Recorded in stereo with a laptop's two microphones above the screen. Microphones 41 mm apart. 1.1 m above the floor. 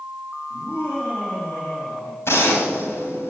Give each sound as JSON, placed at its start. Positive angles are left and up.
{"t": 0.5, "sound": "laughter", "side_deg": 55, "distance_m": 8.0}
{"t": 2.2, "sound": "a gunshot", "side_deg": 80, "distance_m": 3.0}